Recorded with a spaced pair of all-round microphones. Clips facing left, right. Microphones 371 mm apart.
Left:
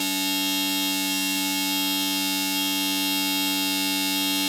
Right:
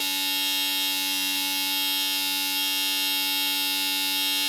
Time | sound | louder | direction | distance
0.0 | a machine running | left 10 dB | 65° left (ahead or behind) | 1.8 m